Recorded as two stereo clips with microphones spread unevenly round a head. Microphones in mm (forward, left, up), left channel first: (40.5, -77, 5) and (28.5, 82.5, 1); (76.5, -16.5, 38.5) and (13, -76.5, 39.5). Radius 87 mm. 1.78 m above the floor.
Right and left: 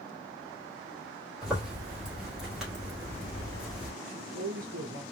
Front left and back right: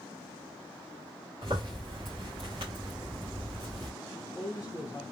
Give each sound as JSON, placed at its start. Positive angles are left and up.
{"t": 1.4, "sound": "a zipper", "azimuth_deg": -175, "distance_m": 1.9}
{"t": 4.0, "sound": "a man speaking", "azimuth_deg": 120, "distance_m": 0.9}